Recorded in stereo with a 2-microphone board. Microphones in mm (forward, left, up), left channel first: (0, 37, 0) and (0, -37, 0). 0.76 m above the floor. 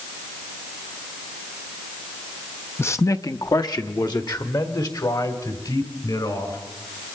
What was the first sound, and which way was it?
A man speaking, 30° left (ahead or behind).